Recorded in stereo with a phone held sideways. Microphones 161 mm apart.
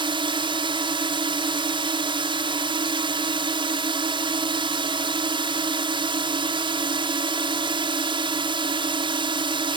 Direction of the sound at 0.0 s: 30° right (ahead or behind).